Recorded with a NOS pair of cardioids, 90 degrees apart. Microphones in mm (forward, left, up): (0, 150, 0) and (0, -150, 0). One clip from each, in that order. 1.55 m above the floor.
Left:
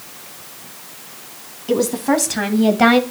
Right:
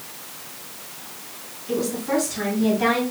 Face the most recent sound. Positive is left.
turn(degrees=75)